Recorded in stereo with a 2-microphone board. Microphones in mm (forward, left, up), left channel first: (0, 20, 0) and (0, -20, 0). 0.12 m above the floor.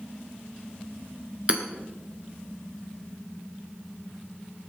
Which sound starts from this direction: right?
Hammering, at 1.5 s.